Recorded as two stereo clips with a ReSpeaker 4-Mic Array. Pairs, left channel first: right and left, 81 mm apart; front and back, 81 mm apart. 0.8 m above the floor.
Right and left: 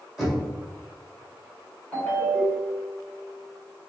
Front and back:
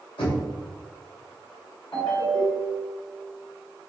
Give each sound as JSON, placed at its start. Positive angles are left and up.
{"t": 0.2, "sound": "knocking", "azimuth_deg": 0, "distance_m": 1.7}
{"t": 1.9, "sound": "a ringtone", "azimuth_deg": -15, "distance_m": 1.7}